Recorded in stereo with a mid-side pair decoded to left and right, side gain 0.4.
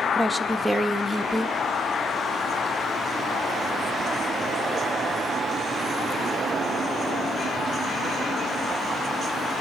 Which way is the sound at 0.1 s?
5° right.